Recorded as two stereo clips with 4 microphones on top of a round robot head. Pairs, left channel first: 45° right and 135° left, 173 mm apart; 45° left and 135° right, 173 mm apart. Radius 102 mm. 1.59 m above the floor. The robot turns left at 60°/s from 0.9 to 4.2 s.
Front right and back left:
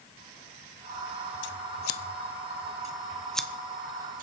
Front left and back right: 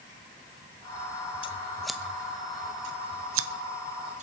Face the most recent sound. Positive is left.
turn(degrees=175)